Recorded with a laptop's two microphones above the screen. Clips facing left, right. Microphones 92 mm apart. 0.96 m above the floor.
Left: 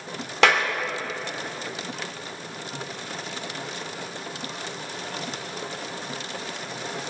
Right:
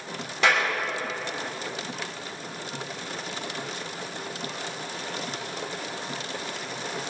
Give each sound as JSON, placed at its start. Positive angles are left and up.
{"t": 0.4, "sound": "a clap", "side_deg": 80, "distance_m": 2.5}